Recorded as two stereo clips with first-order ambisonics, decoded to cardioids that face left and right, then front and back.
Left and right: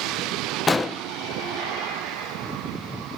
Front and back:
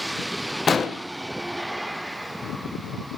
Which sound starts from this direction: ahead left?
An explosion, at 0.7 s.